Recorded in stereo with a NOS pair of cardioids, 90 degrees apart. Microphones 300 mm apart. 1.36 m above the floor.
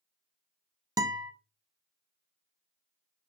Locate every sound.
1.0 s a guitar: 10° right, 0.6 m